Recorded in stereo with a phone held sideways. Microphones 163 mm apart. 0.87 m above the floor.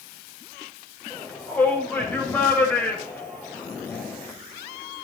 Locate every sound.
1.1 s a shout: 10° left (ahead or behind), 4.5 m